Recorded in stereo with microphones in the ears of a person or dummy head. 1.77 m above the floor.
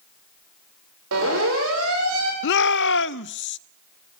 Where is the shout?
60° left (ahead or behind), 0.5 m.